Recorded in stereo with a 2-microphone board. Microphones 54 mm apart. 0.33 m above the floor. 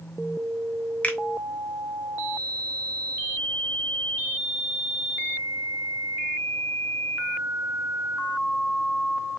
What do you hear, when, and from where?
1.0 s a finger snap: 30° left (ahead or behind), 0.7 m